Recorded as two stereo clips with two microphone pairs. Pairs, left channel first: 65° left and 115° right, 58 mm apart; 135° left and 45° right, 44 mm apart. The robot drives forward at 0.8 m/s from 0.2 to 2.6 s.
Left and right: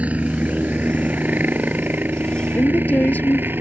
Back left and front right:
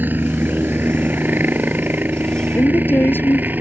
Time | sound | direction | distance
0.0 | a helicopter | 60° right | ?
2.5 | a woman speaking | 115° left | ?